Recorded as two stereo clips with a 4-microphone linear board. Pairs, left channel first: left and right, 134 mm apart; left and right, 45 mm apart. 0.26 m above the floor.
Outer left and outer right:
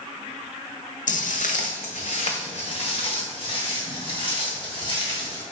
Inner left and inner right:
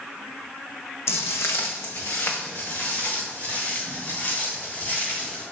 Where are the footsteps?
75° left (ahead or behind), 0.8 m; by 5.4 s 35° left (ahead or behind), 4 m.